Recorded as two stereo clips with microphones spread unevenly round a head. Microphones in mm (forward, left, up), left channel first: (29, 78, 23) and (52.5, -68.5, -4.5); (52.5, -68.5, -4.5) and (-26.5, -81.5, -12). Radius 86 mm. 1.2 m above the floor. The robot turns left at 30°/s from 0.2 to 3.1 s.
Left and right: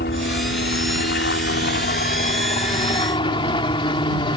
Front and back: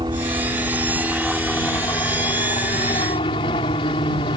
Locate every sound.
0.0 s a helicopter: 130° left; by 4.4 s 45° left